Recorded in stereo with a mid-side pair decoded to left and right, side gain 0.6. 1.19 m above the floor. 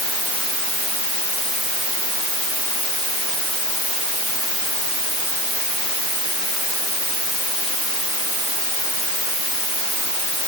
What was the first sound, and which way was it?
Only background noise.